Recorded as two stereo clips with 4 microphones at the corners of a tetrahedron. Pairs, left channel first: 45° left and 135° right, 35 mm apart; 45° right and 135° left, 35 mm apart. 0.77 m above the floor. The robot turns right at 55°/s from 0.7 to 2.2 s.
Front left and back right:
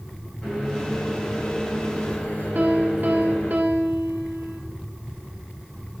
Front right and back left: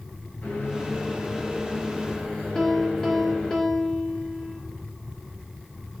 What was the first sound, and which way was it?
A microwave, 30° right.